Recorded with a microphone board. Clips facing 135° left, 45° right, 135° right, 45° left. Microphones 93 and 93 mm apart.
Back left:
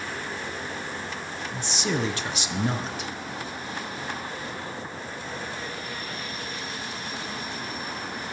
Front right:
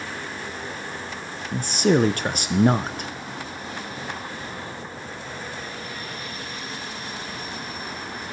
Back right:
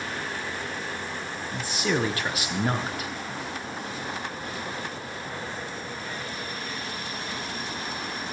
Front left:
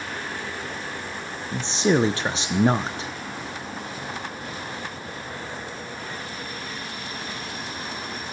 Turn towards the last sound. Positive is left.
turn(degrees=-15)